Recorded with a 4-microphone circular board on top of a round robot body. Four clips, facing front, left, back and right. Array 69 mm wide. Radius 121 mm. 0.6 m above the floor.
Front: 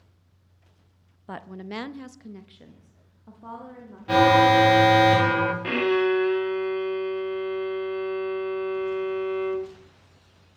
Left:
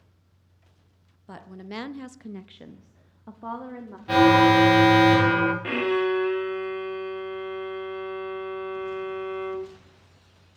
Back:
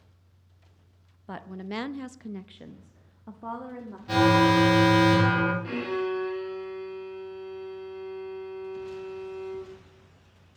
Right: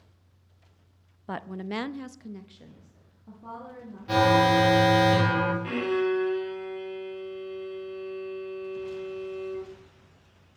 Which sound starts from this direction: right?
A woman speaking, at 1.3 s.